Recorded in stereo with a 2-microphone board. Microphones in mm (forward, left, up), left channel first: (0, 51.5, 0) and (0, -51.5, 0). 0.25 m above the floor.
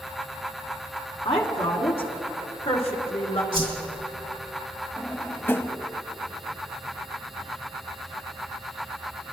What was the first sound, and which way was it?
A woman speaking, 60° left (ahead or behind).